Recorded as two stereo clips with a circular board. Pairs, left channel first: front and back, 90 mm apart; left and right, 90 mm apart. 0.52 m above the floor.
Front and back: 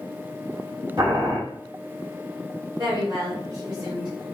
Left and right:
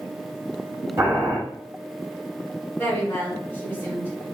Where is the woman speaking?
155° left, 1.8 m.